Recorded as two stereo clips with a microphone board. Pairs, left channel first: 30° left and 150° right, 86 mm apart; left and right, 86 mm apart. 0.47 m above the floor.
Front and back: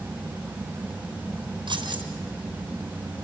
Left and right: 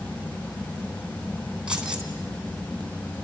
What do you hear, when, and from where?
1.7 s keys jangling: 170° right, 3.5 m